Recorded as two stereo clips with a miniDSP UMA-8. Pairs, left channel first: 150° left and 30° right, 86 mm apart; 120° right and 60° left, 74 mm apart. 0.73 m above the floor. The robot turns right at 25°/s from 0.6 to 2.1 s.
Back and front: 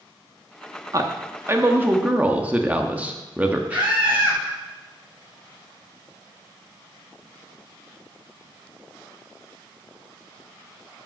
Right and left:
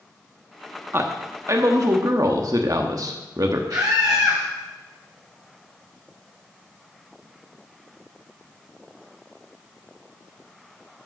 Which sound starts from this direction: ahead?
A man speaking, at 0.9 s.